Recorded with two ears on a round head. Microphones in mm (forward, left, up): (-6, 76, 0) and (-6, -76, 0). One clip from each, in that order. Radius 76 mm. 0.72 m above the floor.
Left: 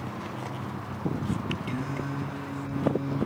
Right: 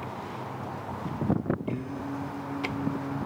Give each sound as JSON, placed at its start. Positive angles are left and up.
{"t": 1.7, "sound": "singing", "side_deg": 80, "distance_m": 6.0}